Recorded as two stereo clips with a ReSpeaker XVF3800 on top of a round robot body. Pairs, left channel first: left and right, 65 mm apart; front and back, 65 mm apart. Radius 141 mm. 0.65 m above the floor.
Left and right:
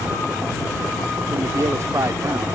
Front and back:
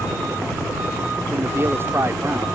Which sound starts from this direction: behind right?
A man speaking, at 1.3 s.